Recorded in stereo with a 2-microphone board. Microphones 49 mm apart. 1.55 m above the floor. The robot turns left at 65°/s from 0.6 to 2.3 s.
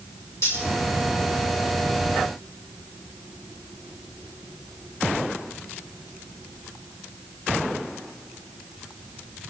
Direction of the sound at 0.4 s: 70° left (ahead or behind).